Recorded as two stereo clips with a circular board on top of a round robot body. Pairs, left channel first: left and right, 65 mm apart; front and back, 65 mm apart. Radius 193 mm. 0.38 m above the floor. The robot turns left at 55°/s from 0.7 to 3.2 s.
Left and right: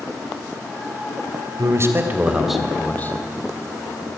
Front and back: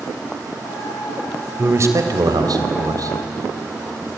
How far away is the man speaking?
About 2.5 m.